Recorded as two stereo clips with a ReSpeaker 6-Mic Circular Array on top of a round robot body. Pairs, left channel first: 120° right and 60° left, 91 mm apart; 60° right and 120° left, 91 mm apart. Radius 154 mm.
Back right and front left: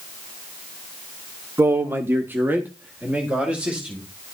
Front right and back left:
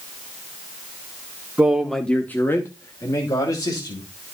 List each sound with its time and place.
1.6 s a man speaking: 65° left, 1.0 m; by 4.1 s 15° right, 2.5 m